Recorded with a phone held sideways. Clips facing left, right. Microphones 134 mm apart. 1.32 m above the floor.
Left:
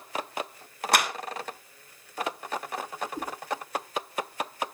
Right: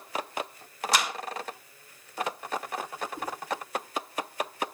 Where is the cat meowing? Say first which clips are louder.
Even; 40° left (ahead or behind), 5.5 m.